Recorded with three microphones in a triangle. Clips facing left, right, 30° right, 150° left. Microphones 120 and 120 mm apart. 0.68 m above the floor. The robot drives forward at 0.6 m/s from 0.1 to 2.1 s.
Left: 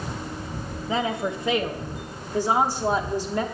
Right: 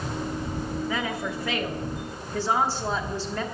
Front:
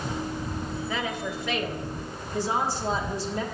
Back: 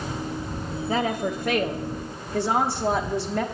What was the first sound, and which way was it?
A woman speaking, 130° left.